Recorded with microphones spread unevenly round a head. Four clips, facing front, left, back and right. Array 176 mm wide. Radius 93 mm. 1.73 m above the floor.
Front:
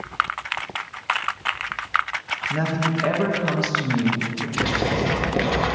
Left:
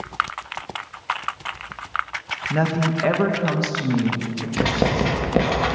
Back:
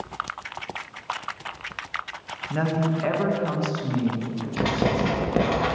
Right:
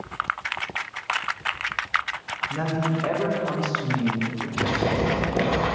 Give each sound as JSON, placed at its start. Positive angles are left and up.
{"t": 2.5, "sound": "a woman speaking", "azimuth_deg": 95, "distance_m": 1.5}
{"t": 4.6, "sound": "writing", "azimuth_deg": 95, "distance_m": 2.5}